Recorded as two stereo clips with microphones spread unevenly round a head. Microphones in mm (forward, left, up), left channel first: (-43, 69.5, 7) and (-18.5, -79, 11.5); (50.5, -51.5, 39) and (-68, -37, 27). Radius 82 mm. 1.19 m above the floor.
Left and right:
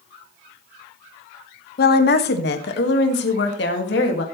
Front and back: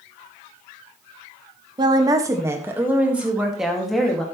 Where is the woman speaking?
115° left, 1.4 m; by 4.2 s 80° left, 2.5 m.